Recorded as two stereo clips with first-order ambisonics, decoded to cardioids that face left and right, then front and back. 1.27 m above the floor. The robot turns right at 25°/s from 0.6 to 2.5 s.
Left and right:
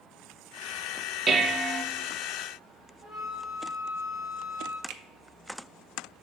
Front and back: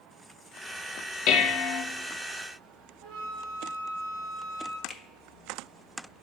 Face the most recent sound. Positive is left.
turn(degrees=-80)